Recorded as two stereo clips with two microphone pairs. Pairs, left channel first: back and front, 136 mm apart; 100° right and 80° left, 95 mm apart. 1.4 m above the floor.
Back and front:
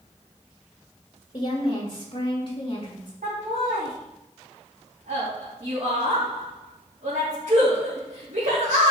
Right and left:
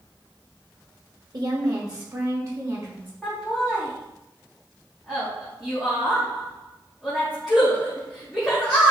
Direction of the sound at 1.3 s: 125° left.